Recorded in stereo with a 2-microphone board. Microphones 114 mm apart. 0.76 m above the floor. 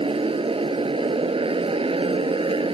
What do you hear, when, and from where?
0.0 s a motorcycle: 55° right (ahead or behind)